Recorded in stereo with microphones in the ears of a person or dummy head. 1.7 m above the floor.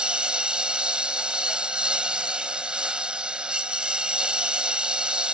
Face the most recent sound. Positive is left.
turn(degrees=0)  # may be behind; listen again after turning